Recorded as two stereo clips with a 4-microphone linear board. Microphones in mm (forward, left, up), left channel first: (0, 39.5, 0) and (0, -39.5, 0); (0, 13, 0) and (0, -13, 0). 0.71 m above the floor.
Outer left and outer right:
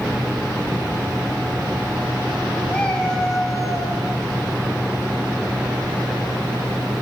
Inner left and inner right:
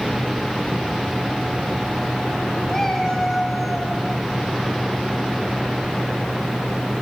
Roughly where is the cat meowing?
Centre.